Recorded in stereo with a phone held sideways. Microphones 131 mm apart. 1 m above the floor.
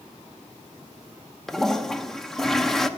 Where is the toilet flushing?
Centre (ahead or behind), 0.6 m.